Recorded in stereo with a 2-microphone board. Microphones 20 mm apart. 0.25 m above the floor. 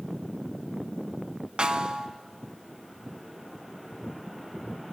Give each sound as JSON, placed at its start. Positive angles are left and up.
{"t": 1.6, "sound": "a snare drum", "side_deg": -50, "distance_m": 1.2}